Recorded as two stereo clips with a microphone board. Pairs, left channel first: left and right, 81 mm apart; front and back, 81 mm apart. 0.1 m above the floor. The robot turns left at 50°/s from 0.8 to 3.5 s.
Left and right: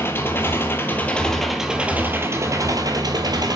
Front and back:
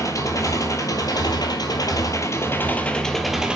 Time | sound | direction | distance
0.0 | an engine running | 35° left | 0.9 m